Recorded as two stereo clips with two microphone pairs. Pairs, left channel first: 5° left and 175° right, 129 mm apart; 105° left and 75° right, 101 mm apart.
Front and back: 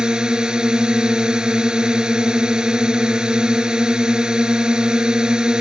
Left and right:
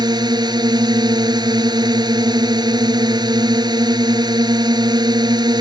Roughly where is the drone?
Right.